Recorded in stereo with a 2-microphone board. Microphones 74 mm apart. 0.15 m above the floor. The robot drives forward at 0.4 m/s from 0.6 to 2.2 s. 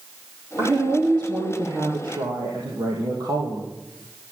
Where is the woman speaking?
70° right (ahead or behind), 4.5 m; by 3.7 s 75° right (ahead or behind), 4.5 m.